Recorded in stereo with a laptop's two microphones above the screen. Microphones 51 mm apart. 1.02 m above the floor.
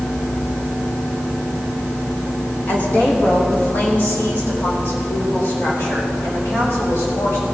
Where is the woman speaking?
35° left (ahead or behind), 1.5 m; by 7.4 s 55° left (ahead or behind), 5 m.